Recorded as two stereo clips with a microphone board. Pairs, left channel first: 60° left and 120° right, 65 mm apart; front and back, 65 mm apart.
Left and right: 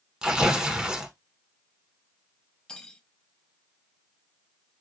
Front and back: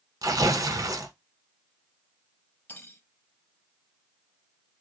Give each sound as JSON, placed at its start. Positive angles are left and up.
{"t": 0.2, "sound": "tearing paper", "azimuth_deg": 165, "distance_m": 1.0}
{"t": 2.7, "sound": "cutlery clinking", "azimuth_deg": -5, "distance_m": 0.6}